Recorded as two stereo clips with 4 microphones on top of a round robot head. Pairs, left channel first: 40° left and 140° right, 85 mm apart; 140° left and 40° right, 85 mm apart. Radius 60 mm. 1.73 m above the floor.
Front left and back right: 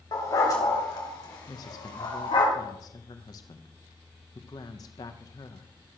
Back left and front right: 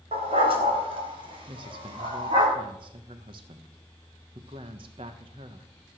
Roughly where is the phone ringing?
I don't hear a phone ringing.